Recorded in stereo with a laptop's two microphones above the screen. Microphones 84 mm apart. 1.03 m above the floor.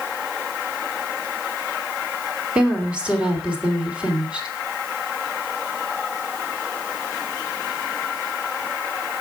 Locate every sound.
2.5 s a woman speaking: 15° right (ahead or behind), 2.5 m